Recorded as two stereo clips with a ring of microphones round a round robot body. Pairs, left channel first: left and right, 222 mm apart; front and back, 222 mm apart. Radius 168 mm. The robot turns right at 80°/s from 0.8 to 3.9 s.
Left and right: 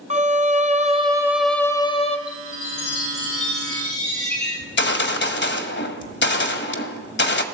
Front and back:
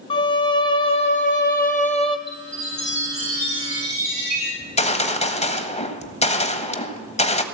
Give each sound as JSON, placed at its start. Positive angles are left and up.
{"t": 0.1, "sound": "a violin", "azimuth_deg": -50, "distance_m": 1.3}
{"t": 2.3, "sound": "a chime", "azimuth_deg": 45, "distance_m": 8.5}
{"t": 4.6, "sound": "a gunshot", "azimuth_deg": 60, "distance_m": 1.5}